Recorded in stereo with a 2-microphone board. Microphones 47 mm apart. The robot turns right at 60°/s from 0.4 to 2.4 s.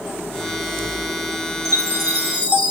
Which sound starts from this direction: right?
A chime, at 1.6 s.